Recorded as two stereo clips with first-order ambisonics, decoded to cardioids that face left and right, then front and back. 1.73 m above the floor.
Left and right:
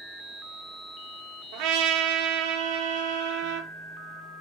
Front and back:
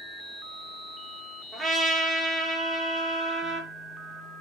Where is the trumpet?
105° right, 1.5 m.